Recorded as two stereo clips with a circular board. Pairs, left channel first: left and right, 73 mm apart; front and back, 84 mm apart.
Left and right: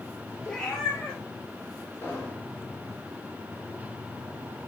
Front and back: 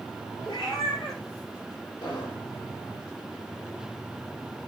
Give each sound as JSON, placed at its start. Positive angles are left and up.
{"t": 0.5, "sound": "a cat meowing", "azimuth_deg": 10, "distance_m": 4.0}
{"t": 2.0, "sound": "an explosion", "azimuth_deg": 25, "distance_m": 7.0}